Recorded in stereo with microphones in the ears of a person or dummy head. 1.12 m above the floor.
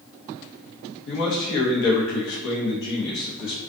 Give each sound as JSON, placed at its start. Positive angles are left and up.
{"t": 1.1, "sound": "a man speaking", "side_deg": 65, "distance_m": 0.8}